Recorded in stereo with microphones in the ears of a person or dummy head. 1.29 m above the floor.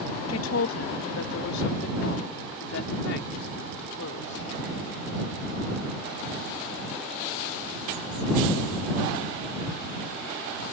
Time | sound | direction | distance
0.3 | a woman speaking | 70° left (ahead or behind) | ?